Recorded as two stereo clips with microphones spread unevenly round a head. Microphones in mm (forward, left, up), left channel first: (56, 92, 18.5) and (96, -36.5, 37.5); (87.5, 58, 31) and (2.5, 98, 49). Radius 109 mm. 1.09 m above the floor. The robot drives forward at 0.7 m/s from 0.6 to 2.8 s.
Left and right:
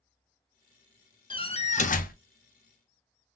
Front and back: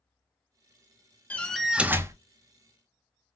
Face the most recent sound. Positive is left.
turn(degrees=130)